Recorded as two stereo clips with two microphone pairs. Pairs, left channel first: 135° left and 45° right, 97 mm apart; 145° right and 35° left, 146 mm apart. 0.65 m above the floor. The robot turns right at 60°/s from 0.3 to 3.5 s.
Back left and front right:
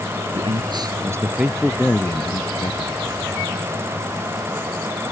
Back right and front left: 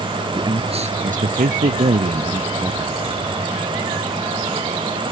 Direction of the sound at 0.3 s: 30° right.